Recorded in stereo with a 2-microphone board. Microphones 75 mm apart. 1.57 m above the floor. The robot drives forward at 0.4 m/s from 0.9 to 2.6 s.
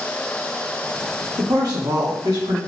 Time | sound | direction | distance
1.4 | a man speaking | 55° right (ahead or behind) | 1.9 m